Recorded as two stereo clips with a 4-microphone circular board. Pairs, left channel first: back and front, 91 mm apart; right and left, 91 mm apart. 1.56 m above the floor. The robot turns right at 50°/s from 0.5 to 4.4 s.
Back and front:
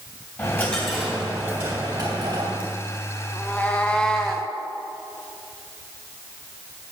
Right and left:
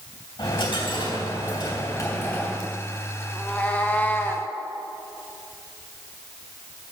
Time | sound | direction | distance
0.4 | a dropped coin | 115° right | 2.5 m
3.3 | a cat meowing | 150° right | 0.8 m